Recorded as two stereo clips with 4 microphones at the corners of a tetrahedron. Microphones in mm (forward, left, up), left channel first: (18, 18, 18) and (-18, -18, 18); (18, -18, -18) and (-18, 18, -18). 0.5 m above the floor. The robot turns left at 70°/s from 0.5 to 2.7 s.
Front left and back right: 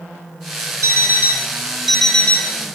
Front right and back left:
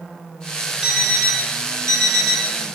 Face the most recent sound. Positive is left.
turn(degrees=80)